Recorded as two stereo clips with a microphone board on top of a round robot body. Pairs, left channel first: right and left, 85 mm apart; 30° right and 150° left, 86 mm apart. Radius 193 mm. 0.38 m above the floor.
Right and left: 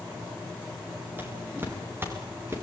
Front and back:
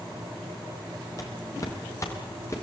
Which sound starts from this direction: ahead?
Footsteps, at 1.2 s.